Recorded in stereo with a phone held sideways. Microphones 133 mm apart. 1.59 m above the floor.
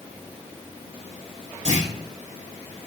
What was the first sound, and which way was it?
A clunk, 70° right (ahead or behind).